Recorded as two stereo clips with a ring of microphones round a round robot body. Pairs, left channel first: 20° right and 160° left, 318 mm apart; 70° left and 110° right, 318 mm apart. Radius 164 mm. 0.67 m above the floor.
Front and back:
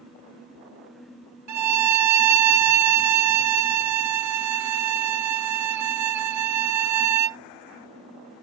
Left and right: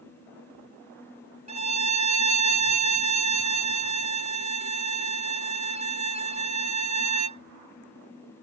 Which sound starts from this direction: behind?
A violin, at 1.5 s.